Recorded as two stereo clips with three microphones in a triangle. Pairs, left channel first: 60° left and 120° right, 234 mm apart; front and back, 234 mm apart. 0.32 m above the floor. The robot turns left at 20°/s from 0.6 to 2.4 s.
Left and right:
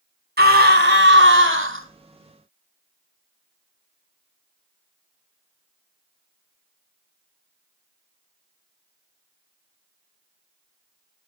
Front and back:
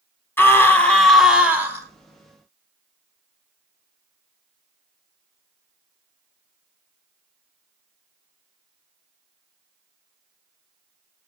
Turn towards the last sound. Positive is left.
turn(degrees=-115)